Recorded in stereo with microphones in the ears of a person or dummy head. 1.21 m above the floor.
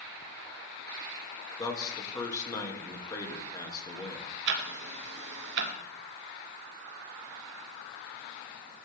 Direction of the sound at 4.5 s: 65° right (ahead or behind).